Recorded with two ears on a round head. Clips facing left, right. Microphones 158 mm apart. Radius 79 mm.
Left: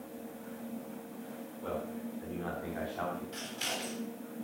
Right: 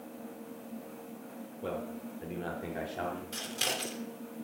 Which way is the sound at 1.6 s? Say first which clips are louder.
Even; 35° right (ahead or behind).